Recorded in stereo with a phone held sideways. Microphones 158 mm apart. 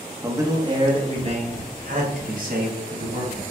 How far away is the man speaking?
About 1.0 m.